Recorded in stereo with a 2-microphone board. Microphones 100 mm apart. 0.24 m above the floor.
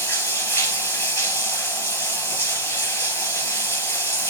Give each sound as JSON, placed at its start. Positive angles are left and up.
{"t": 0.0, "sound": "running water", "side_deg": 25, "distance_m": 1.2}